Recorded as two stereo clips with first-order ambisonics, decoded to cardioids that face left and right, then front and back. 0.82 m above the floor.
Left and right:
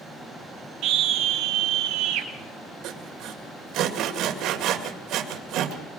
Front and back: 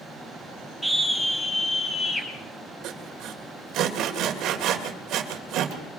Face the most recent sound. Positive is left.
turn(degrees=-130)